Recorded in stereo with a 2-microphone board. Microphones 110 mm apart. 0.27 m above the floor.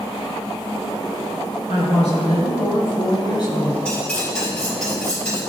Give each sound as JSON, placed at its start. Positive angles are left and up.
{"t": 1.7, "sound": "a woman speaking", "side_deg": 75, "distance_m": 4.0}
{"t": 3.9, "sound": "cutlery clinking", "side_deg": 10, "distance_m": 4.0}